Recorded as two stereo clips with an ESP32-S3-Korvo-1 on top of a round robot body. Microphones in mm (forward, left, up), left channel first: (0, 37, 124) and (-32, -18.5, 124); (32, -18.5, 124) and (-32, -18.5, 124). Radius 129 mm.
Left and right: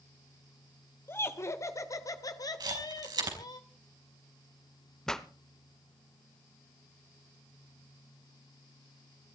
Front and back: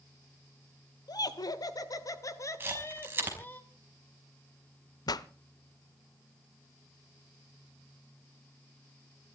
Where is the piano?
No piano in this recording.